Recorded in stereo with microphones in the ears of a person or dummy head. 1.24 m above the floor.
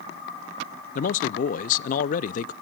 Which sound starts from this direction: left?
A man speaking, at 0.9 s.